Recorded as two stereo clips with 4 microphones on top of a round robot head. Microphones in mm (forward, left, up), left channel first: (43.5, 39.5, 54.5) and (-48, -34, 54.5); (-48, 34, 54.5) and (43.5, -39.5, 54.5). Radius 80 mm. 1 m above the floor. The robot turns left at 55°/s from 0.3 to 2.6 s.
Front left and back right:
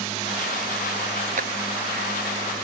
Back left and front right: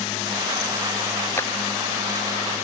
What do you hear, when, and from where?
1.4 s a clap: 150° right; by 1.5 s 155° right